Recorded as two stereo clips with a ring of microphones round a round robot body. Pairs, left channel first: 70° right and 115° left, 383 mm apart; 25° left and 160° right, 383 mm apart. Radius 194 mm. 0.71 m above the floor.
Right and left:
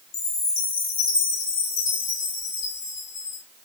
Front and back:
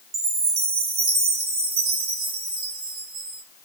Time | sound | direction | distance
0.1 | a chime | 135° right | 1.8 m